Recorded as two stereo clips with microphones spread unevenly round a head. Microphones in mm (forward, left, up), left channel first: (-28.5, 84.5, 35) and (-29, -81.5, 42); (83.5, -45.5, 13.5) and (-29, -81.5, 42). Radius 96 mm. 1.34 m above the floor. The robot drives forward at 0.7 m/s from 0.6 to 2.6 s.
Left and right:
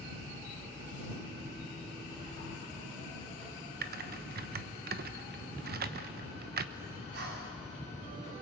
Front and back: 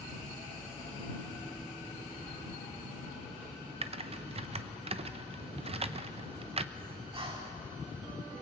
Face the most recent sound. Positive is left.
turn(degrees=-120)